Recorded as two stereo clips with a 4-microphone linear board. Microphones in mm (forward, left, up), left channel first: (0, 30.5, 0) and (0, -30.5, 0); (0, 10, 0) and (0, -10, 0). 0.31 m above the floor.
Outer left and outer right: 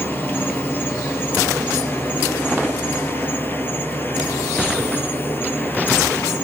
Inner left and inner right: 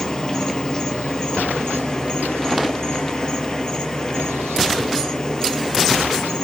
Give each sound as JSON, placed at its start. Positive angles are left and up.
{"t": 0.0, "sound": "an insect", "side_deg": 30, "distance_m": 1.1}